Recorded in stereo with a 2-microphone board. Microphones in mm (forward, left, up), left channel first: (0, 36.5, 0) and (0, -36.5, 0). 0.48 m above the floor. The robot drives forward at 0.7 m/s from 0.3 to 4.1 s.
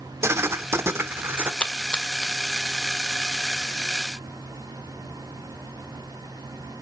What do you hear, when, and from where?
0.2 s writing: 35° right (ahead or behind), 1.1 m; by 1.5 s 30° right (ahead or behind), 1.4 m
1.6 s a splash: 15° left (ahead or behind), 1.5 m; by 2.3 s 10° left (ahead or behind), 1.8 m